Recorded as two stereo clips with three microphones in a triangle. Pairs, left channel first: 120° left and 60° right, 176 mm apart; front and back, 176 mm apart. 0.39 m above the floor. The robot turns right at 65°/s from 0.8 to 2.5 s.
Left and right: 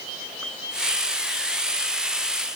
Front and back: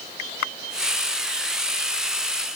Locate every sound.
Only background noise.